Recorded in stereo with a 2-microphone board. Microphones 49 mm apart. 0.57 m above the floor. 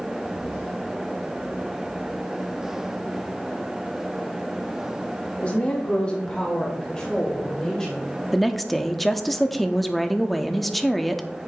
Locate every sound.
5.4 s a woman speaking: 30° left (ahead or behind), 0.9 m; by 8.1 s 10° left (ahead or behind), 2.5 m
8.3 s a woman speaking: centre (ahead or behind), 0.6 m